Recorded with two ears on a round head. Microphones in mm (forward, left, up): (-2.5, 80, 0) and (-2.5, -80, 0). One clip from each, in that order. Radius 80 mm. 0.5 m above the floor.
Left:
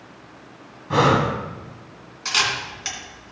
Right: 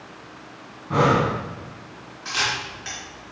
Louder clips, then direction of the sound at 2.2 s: Left 3 dB; 80° left.